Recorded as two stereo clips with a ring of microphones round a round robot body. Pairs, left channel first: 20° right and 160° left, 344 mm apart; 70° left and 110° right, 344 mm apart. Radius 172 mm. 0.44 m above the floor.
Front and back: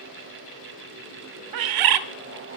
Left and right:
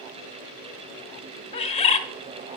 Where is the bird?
140° left, 0.6 m.